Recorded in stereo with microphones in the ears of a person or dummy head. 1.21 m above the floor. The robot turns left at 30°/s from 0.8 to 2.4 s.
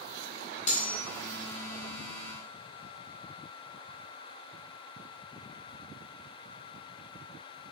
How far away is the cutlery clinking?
About 1.2 m.